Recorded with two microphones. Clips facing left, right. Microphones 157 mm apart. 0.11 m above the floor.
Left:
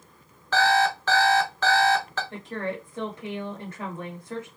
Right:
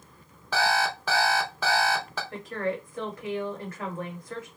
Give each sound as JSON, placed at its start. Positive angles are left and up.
{"t": 0.5, "sound": "an alarm clock", "side_deg": -10, "distance_m": 0.5}
{"t": 2.3, "sound": "a woman speaking", "side_deg": 25, "distance_m": 1.6}